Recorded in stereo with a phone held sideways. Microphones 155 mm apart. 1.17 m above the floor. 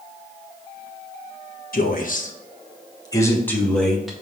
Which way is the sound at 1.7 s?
70° left (ahead or behind).